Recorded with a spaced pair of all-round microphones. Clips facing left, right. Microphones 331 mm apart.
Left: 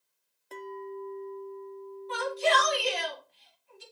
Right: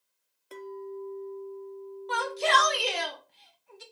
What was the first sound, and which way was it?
A clink, 5° right (ahead or behind).